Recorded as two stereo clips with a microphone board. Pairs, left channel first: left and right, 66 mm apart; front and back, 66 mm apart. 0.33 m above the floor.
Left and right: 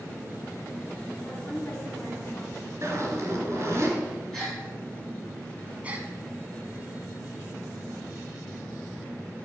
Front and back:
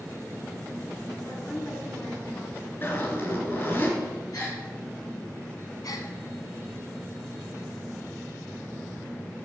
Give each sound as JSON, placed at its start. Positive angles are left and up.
{"t": 1.2, "sound": "a woman speaking", "azimuth_deg": 55, "distance_m": 3.5}
{"t": 2.8, "sound": "a zipper", "azimuth_deg": -50, "distance_m": 2.5}
{"t": 4.3, "sound": "a gasp", "azimuth_deg": 5, "distance_m": 4.5}
{"t": 5.8, "sound": "a gasp", "azimuth_deg": -20, "distance_m": 1.0}